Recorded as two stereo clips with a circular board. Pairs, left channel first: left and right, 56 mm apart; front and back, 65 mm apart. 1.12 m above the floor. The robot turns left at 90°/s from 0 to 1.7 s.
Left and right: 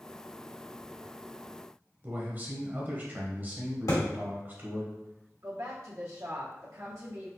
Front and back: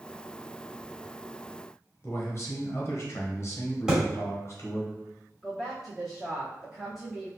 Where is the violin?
I don't hear a violin.